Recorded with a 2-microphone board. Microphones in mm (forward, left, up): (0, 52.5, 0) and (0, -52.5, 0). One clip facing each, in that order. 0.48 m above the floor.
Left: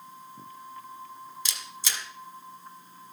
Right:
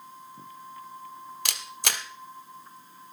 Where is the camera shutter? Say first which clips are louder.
Right 7 dB; 65° right (ahead or behind), 1.2 m.